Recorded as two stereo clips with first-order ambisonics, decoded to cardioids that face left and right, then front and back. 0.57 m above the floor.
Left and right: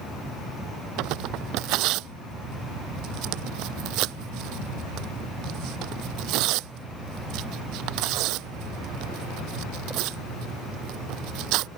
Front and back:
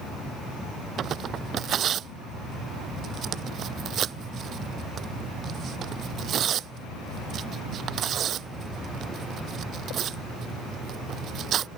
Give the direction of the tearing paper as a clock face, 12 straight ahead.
4 o'clock.